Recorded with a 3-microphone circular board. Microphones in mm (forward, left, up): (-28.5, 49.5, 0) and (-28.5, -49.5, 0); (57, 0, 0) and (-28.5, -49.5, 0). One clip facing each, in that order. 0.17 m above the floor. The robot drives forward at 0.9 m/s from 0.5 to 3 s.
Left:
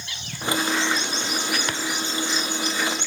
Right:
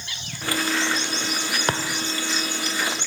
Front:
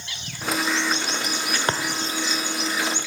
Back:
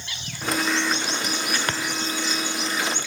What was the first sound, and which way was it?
A thud, 35° right.